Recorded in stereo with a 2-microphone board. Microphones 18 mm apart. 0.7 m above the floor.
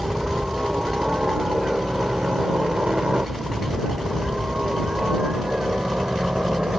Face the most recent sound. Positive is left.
turn(degrees=-55)  # may be behind; listen again after turning